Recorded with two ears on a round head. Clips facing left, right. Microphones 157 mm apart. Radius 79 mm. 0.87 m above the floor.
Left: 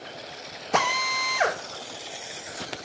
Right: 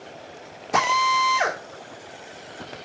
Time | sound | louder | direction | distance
0.7 | a drill | right 4 dB | centre (ahead or behind) | 3 m